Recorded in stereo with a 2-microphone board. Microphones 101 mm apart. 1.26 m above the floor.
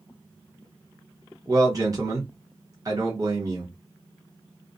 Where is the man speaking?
35° right (ahead or behind), 1.0 m.